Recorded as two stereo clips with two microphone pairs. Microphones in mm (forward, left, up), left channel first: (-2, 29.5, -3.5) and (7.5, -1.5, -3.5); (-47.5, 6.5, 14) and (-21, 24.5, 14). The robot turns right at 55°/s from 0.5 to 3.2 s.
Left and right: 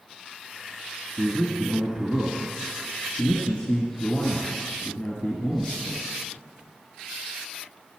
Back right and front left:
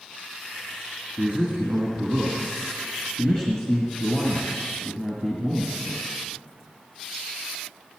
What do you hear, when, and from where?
1.2 s a man speaking: 35° left, 1.8 m; by 6.0 s 150° left, 1.8 m